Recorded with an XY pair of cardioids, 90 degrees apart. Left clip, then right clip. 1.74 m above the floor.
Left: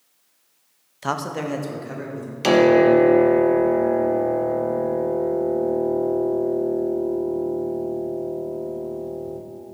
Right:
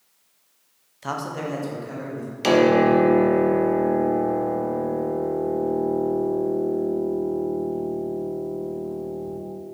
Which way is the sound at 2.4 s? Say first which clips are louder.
Left 2 dB; 10° left.